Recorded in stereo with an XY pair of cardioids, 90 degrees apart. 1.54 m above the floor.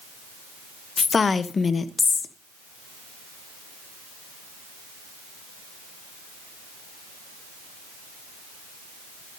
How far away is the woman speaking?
About 0.8 m.